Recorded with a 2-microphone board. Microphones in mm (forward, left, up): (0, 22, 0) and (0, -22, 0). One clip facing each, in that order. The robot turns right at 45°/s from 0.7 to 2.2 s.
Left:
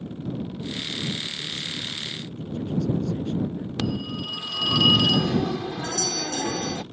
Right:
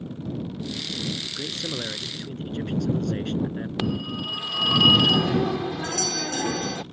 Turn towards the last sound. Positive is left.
turn(degrees=-55)  # may be behind; listen again after turning